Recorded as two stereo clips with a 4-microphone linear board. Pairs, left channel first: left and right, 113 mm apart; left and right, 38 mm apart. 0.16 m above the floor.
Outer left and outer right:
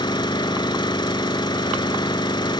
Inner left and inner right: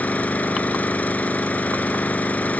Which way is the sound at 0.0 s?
45° left (ahead or behind).